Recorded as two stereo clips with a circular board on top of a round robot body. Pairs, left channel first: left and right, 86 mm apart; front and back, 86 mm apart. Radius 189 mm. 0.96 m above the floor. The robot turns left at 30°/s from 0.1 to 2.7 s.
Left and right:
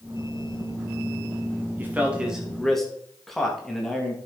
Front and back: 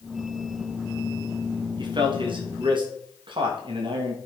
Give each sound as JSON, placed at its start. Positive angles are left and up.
{"t": 1.8, "sound": "a man speaking", "azimuth_deg": -155, "distance_m": 2.5}